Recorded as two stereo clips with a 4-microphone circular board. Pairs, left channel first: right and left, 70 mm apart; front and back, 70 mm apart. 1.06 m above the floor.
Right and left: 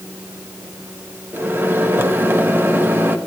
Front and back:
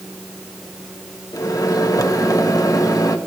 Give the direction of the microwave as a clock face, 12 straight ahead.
11 o'clock.